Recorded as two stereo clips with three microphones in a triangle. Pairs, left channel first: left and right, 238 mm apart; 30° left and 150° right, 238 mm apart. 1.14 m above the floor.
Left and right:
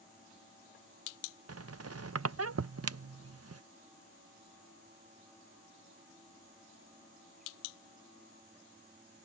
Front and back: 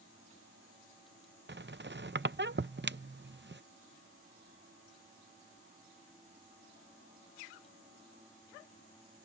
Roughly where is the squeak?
Right.